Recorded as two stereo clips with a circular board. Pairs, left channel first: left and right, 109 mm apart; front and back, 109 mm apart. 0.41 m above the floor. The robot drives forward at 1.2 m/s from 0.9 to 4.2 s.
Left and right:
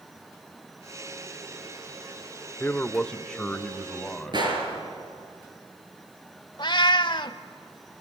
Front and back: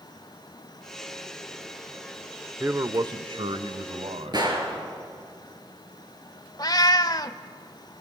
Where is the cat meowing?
50° left, 0.7 m.